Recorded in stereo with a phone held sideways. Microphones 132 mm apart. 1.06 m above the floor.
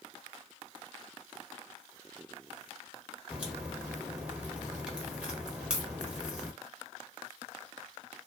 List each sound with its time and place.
3.3 s a crack: 10° right (ahead or behind), 0.9 m